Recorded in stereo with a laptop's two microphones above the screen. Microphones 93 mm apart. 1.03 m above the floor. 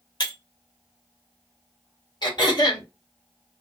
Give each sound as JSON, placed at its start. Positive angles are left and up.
{"t": 0.2, "sound": "breaking glass", "side_deg": 50, "distance_m": 1.1}
{"t": 2.2, "sound": "throat clearing", "side_deg": 50, "distance_m": 1.1}